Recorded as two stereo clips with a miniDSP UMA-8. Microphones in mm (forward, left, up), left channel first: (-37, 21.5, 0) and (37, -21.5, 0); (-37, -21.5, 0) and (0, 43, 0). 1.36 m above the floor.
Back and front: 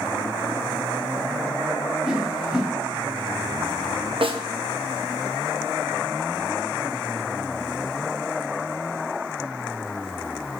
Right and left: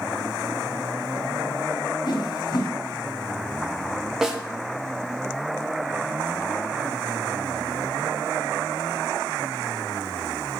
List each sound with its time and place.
2.0 s a whoosh: 115° right, 1.8 m
4.2 s a snare drum: 20° right, 1.0 m